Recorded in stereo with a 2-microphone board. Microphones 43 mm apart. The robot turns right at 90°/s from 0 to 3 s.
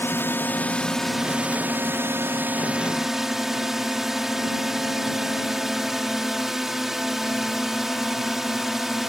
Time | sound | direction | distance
0.0 | a drone | 80° left | ?